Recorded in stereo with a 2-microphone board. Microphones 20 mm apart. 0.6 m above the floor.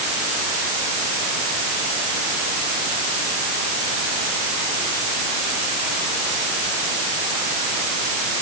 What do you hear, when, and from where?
Only background noise.